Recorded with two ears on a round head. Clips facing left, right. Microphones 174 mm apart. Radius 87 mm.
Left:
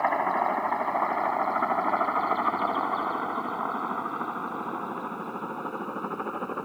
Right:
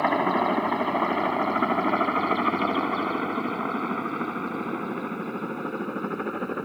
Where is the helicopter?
45° right (ahead or behind); by 6.7 s 20° right (ahead or behind).